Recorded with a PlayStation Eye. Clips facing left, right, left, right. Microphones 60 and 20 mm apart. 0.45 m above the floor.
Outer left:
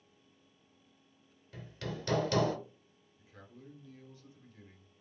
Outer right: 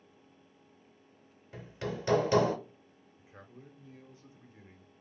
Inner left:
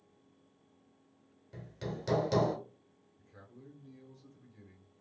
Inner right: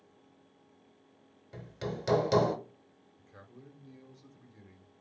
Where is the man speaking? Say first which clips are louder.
Outer right 2 dB, inner right 1 dB; 30° right (ahead or behind), 0.8 m.